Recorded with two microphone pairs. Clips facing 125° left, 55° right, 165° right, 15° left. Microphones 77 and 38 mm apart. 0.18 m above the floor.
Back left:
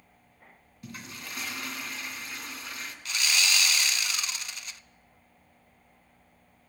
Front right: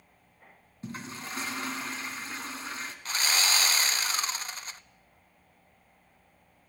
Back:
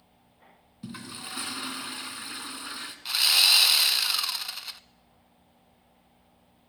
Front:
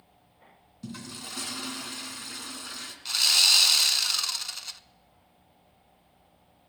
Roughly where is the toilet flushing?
Right.